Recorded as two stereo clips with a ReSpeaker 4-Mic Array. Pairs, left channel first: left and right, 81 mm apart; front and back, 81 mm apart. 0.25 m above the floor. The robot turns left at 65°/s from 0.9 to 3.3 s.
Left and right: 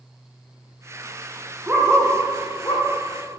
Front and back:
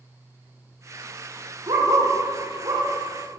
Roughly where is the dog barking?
Behind right.